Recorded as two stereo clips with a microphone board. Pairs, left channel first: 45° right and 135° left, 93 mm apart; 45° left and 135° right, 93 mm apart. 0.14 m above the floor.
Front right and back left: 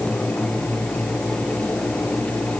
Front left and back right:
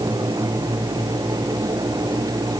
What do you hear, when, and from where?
Only background noise.